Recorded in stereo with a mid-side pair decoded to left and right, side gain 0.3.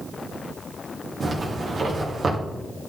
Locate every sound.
1.2 s a zipper: 55° right, 2.5 m